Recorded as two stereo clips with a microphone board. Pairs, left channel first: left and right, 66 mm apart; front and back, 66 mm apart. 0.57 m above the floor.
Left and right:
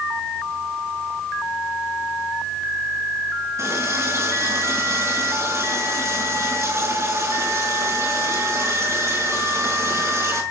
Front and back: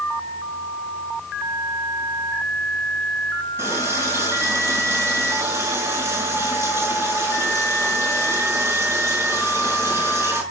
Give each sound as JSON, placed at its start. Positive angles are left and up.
{"t": 3.6, "sound": "a running tap", "azimuth_deg": -130, "distance_m": 5.0}